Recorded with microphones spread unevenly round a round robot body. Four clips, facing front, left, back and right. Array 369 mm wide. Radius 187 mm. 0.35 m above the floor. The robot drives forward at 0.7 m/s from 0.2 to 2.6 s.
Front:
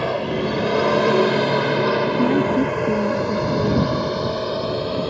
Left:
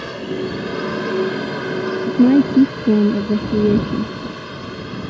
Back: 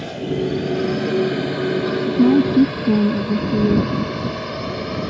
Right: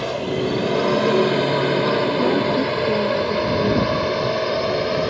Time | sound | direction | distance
0.0 | a drone | 15° right | ?
2.1 | a woman speaking | 125° left | ?